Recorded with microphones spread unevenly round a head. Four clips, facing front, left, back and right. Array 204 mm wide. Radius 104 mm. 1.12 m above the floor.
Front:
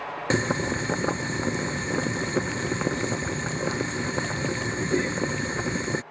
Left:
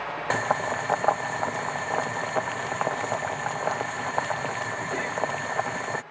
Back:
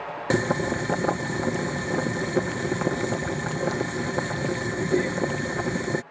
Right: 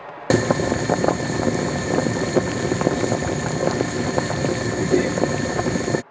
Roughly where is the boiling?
Right.